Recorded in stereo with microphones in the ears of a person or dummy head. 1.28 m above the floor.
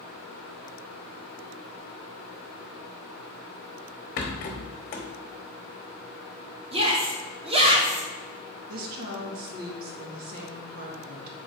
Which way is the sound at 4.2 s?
40° left (ahead or behind).